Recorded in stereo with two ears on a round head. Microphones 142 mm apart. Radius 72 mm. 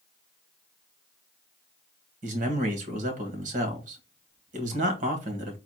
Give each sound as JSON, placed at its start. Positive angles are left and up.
{"t": 2.2, "sound": "a man speaking", "side_deg": -50, "distance_m": 1.6}